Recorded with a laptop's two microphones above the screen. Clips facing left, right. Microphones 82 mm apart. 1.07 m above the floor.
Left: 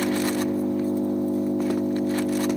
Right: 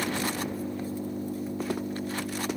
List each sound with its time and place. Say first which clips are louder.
0.0 s an engine running: left 7 dB; 70° left (ahead or behind)